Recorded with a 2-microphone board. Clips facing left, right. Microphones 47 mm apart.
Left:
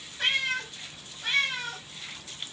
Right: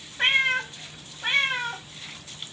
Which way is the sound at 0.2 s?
30° right (ahead or behind).